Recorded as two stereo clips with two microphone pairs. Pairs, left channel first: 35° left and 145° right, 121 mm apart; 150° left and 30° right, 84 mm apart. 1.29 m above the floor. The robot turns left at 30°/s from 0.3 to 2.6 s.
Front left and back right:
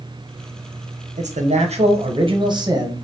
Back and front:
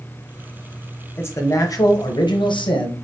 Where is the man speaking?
150° right, 0.8 m; by 2.9 s 165° left, 0.8 m.